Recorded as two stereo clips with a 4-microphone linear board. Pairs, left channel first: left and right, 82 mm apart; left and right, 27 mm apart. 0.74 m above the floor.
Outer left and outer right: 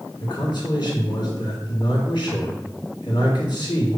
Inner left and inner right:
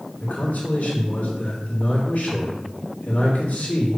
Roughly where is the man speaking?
Left.